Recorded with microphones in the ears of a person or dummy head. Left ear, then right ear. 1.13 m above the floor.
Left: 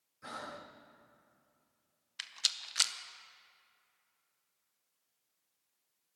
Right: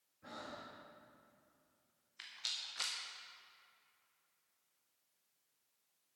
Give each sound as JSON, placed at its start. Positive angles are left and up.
{"t": 0.2, "sound": "breathing", "side_deg": 50, "distance_m": 0.7}
{"t": 2.2, "sound": "a rattle", "side_deg": 50, "distance_m": 0.6}